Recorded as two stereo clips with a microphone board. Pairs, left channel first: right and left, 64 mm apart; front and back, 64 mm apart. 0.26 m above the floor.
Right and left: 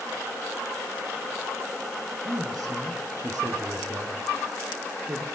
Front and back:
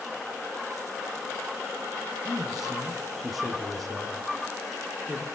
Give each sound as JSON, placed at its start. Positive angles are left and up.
{"t": 2.2, "sound": "a man speaking", "azimuth_deg": 95, "distance_m": 5.5}